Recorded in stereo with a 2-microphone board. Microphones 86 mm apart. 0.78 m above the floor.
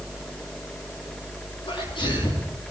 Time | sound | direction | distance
1.7 | a sneeze | 70° left (ahead or behind) | 9 m